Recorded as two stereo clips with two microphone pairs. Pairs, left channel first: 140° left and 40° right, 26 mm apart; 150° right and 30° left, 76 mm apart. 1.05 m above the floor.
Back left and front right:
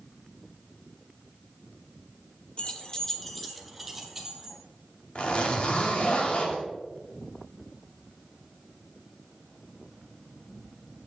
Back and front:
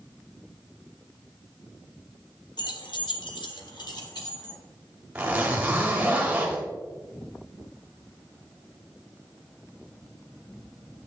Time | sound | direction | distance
2.6 | keys jangling | 175° right | 1.0 m
5.2 | a zipper | 105° left | 2 m